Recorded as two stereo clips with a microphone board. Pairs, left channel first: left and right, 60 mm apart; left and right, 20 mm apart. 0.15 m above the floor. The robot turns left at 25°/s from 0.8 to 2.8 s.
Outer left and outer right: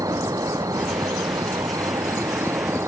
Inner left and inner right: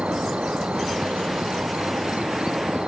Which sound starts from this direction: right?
An insect, at 0.0 s.